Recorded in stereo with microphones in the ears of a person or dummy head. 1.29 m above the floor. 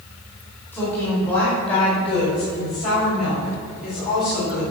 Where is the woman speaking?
15° left (ahead or behind), 4 m; by 4.6 s 60° left (ahead or behind), 4 m.